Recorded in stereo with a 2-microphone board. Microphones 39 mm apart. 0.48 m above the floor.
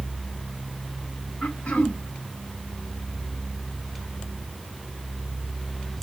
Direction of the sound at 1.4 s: 50° left (ahead or behind).